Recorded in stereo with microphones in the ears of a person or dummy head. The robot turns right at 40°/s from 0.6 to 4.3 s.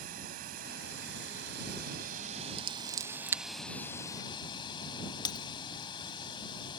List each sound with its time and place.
0.0 s running water: 115° right; by 6.8 s 30° left
2.6 s scissors: 35° right (ahead or behind); by 3.4 s 10° right (ahead or behind)
5.2 s breaking glass: 25° left (ahead or behind)